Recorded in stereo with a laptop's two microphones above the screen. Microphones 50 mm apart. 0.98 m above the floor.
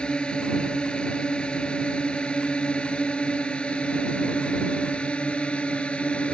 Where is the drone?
20° left (ahead or behind); by 6.3 s 25° left (ahead or behind).